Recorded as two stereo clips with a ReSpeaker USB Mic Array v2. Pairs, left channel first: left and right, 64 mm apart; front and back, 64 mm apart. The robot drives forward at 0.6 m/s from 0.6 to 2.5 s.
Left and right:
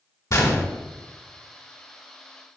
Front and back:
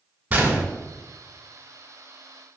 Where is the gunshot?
115° left, 1.7 m.